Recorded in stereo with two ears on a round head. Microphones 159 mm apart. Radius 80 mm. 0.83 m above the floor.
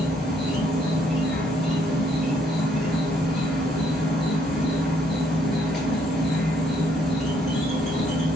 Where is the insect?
Centre (ahead or behind), 1.1 m.